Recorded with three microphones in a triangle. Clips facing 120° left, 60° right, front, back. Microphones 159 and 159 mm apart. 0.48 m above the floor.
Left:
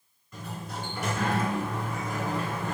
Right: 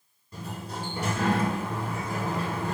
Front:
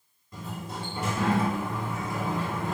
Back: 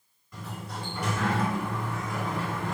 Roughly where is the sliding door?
Ahead right.